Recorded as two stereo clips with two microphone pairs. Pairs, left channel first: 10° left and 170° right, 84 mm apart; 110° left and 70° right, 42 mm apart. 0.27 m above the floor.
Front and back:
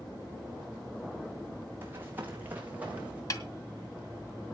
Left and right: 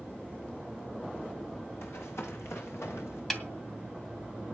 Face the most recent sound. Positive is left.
turn(degrees=30)